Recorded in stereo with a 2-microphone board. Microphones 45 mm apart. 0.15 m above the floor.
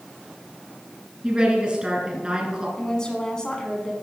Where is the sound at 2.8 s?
15° left (ahead or behind), 1.3 m.